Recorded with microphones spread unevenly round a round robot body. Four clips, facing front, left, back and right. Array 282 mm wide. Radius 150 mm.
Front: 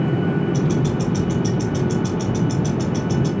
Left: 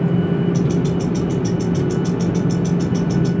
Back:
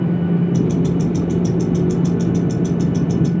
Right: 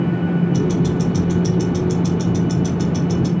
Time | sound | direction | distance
0.5 | ticking | 160° right | 1.8 m